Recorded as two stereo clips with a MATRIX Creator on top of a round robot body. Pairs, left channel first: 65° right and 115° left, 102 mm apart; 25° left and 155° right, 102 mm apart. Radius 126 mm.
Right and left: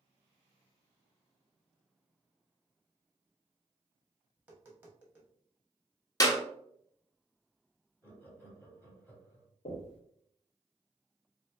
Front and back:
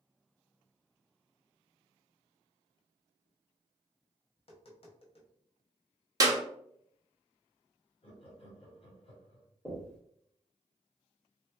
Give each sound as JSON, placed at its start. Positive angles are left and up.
{"t": 4.4, "sound": "tapping", "azimuth_deg": 40, "distance_m": 1.5}
{"t": 6.2, "sound": "a clap", "azimuth_deg": -115, "distance_m": 1.2}
{"t": 8.0, "sound": "laughter", "azimuth_deg": 5, "distance_m": 2.0}
{"t": 9.7, "sound": "knocking", "azimuth_deg": -60, "distance_m": 1.4}